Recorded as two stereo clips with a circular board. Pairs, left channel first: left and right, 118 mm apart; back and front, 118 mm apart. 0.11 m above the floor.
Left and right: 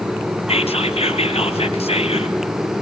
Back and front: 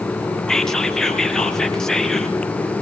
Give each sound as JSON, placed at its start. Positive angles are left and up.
{"t": 0.5, "sound": "whispering", "azimuth_deg": 95, "distance_m": 3.0}